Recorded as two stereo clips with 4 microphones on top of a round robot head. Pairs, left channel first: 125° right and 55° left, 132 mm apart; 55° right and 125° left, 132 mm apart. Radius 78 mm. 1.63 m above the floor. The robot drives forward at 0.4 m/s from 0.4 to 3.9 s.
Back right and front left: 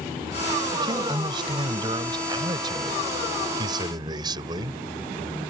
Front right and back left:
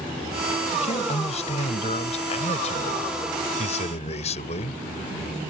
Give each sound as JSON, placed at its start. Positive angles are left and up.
{"t": 0.7, "sound": "a man speaking", "azimuth_deg": -5}